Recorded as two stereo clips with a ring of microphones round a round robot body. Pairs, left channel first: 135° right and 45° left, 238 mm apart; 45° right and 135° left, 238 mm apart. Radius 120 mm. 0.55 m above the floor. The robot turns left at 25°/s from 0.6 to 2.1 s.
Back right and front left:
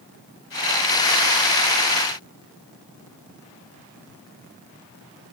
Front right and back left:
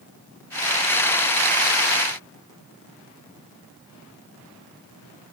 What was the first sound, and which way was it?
Only background noise.